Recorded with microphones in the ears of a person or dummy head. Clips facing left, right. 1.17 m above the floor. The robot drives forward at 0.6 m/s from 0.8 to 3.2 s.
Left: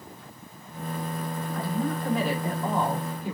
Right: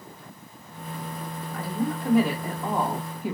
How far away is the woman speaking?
About 2.5 m.